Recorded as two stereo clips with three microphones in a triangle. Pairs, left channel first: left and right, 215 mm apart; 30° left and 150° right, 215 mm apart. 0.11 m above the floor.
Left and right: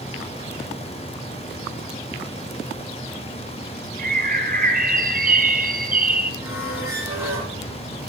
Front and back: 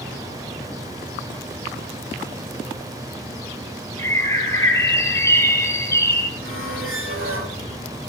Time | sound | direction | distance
4.0 | a bird | 45° right | 1.6 m
6.4 | a squeak | 170° right | 7 m